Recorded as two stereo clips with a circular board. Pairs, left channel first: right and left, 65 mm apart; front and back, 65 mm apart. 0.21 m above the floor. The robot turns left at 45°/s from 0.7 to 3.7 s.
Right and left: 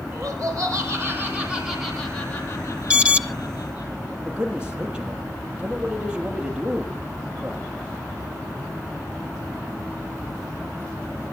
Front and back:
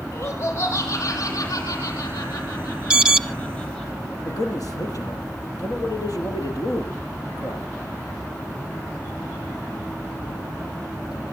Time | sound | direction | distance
0.1 | laughter | 50° left | 8.5 m
2.9 | an alarm | 135° left | 0.9 m
4.2 | a man speaking | 15° left | 6 m